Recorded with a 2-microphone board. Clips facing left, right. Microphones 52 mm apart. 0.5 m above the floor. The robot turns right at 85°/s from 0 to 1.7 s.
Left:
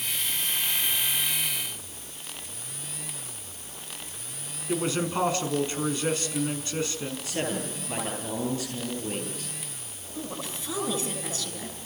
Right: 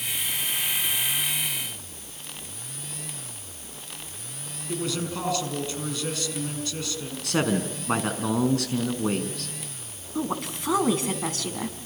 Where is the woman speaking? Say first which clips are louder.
Right 7 dB; 60° right (ahead or behind), 5 m.